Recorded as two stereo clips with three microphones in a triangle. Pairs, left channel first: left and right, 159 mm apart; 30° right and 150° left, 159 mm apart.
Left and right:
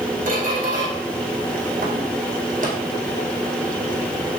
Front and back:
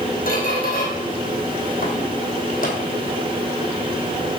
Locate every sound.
0.3 s a squeak: 55° right, 2.5 m